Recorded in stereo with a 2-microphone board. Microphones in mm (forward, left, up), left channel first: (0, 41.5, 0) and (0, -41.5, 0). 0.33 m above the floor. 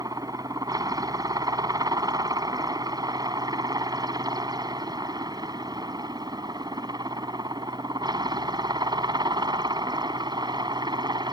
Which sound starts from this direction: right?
A helicopter, at 0.0 s.